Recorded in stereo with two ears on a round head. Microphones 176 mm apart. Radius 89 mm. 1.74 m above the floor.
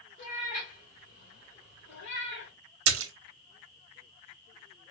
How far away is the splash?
About 0.7 m.